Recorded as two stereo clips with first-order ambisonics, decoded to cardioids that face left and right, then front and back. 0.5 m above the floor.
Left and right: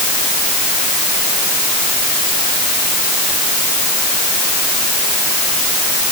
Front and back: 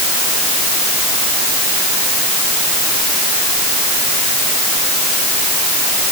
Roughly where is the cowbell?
I don't hear a cowbell.